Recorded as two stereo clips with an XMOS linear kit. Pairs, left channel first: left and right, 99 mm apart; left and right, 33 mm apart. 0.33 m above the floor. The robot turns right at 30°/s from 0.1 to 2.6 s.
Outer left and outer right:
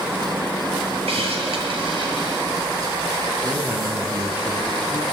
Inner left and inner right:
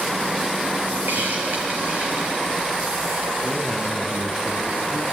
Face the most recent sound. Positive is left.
turn(degrees=-15)  # may be behind; listen again after turning